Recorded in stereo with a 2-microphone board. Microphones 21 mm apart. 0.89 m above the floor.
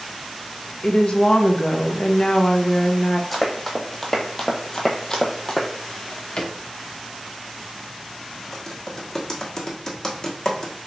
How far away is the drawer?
About 0.7 m.